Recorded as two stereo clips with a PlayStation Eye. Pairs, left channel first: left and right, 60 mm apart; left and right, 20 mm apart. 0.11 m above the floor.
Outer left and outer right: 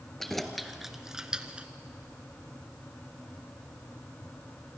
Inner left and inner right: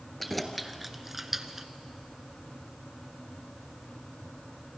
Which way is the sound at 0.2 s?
5° left (ahead or behind).